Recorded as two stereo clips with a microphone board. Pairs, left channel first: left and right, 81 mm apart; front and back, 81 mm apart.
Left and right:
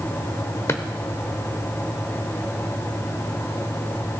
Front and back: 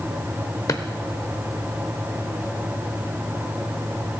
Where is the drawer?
40° left, 0.9 m.